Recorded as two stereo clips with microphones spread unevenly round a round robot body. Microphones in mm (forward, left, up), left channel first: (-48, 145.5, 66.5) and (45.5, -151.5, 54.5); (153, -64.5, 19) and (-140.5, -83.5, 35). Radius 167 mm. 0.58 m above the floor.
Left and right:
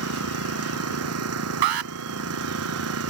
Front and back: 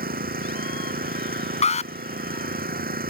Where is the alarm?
65° right.